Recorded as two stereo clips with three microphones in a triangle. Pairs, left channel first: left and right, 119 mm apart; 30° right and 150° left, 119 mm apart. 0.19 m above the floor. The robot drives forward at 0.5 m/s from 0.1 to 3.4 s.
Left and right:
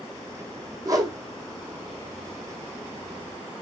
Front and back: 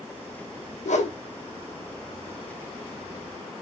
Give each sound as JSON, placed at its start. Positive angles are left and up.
{"t": 0.8, "sound": "a whoosh", "azimuth_deg": -30, "distance_m": 1.6}